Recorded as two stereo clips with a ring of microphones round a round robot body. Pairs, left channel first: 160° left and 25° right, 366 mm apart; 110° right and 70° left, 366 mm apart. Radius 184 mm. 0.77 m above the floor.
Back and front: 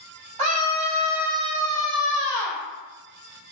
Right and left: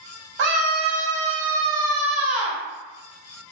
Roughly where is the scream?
Ahead.